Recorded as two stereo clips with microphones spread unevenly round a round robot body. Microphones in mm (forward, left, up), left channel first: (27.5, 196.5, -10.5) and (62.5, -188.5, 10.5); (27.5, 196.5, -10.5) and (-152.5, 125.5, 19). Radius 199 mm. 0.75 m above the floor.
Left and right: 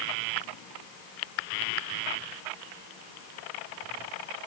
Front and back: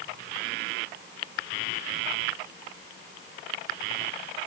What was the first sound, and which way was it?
Only background noise.